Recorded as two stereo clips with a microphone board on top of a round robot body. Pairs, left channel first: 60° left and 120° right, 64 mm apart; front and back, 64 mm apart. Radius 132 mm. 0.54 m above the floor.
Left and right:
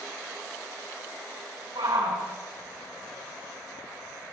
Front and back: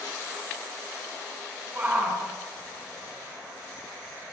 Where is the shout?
115° right, 7 m; by 4.3 s 105° right, 8 m.